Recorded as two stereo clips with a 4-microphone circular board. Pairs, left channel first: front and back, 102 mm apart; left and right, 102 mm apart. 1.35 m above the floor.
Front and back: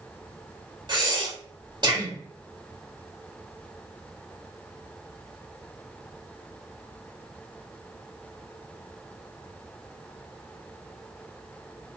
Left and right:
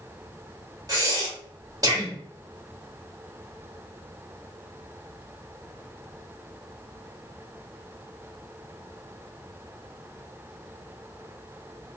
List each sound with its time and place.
0.9 s breathing: 140° right, 1.2 m